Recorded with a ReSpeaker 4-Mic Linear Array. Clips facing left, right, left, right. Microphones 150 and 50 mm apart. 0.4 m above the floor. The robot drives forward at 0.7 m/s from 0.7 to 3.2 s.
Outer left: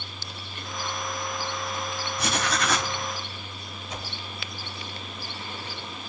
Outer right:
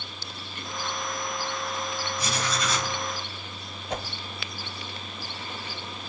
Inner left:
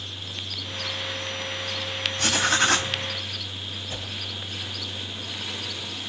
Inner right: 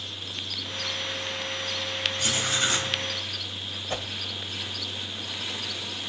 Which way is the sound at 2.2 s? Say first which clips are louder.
Outer left 4 dB, inner left 7 dB; 70° left (ahead or behind).